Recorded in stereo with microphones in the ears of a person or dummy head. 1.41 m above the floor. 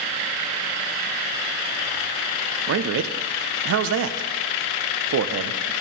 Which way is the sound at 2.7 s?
70° right (ahead or behind).